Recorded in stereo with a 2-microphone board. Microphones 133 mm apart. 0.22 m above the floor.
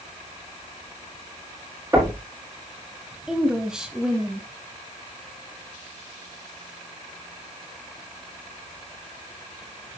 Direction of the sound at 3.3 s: 5° right (ahead or behind).